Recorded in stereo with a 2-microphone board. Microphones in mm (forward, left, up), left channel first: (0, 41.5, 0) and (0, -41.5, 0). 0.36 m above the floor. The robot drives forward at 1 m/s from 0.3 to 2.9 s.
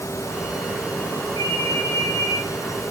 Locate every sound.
1.4 s a ringtone: 60° right (ahead or behind), 5.5 m; by 2.4 s 50° right (ahead or behind), 6.5 m